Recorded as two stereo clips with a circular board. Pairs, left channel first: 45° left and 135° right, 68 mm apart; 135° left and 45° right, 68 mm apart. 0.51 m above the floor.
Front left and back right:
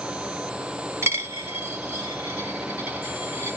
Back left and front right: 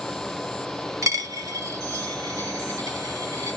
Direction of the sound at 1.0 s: 85° right.